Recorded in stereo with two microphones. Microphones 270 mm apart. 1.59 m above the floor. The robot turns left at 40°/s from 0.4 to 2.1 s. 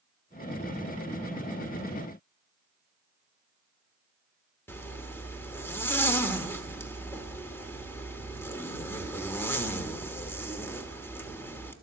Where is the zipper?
10° left (ahead or behind), 1.4 m.